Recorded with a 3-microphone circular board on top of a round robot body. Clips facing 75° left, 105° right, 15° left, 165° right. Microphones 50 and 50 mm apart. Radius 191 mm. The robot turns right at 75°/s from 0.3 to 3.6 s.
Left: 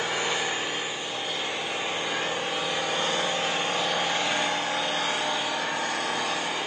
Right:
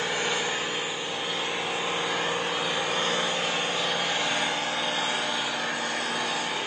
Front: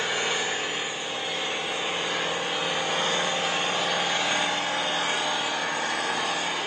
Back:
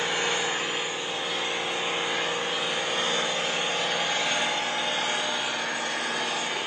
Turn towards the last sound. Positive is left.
turn(degrees=20)